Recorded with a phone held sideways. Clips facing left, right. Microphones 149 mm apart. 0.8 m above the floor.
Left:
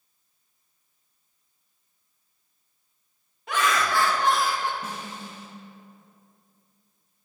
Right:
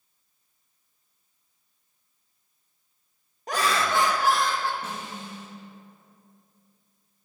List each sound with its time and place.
3.5 s laughter: 40° right (ahead or behind), 0.8 m; by 4.7 s 20° left (ahead or behind), 0.7 m
4.8 s a snare drum: 10° left (ahead or behind), 2.5 m